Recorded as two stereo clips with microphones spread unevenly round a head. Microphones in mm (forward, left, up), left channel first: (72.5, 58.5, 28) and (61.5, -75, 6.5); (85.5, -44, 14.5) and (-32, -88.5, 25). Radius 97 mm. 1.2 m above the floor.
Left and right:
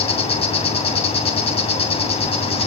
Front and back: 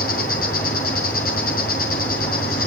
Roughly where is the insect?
Ahead left.